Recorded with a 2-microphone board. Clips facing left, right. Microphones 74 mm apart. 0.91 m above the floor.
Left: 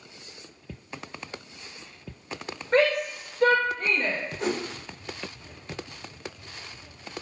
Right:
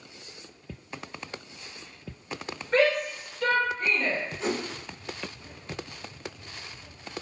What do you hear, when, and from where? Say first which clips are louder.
2.7 s a shout: left 1 dB; 40° left (ahead or behind), 1.1 m; by 4.2 s 50° left (ahead or behind), 0.9 m
4.4 s a whoosh: left 3 dB; 75° left (ahead or behind), 1.3 m